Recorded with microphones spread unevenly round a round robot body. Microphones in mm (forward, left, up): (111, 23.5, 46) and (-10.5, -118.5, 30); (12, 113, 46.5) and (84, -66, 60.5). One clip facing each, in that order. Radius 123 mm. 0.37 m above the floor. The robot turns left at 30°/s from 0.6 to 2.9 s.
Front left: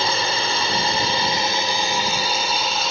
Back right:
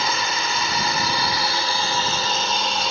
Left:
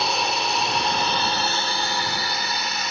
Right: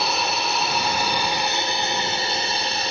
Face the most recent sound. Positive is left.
turn(degrees=-45)